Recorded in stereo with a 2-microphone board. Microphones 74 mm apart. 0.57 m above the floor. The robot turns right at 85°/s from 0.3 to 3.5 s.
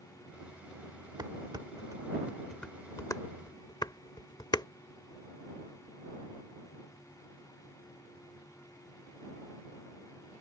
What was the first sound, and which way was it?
Dishes clattering, 65° right (ahead or behind).